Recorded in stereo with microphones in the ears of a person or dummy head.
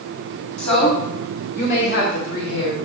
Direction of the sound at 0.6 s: 30° left (ahead or behind).